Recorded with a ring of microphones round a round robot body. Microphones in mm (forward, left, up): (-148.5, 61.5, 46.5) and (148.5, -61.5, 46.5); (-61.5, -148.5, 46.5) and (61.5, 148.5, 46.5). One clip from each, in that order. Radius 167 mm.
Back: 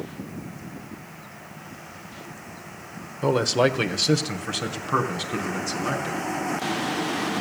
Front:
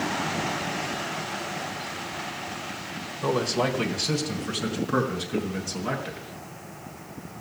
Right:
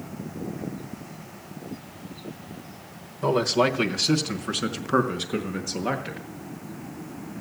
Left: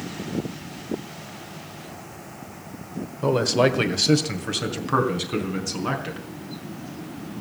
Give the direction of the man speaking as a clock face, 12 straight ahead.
7 o'clock.